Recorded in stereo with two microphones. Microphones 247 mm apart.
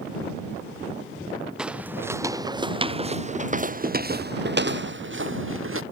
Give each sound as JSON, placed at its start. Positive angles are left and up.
{"t": 1.6, "sound": "footsteps", "side_deg": -5}